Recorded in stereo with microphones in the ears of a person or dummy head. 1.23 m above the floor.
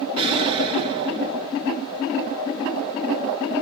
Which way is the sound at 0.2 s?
30° right (ahead or behind).